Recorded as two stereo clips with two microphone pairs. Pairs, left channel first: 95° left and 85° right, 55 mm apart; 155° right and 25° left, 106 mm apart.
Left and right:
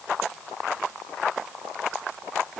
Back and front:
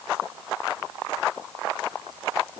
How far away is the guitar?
No guitar in this recording.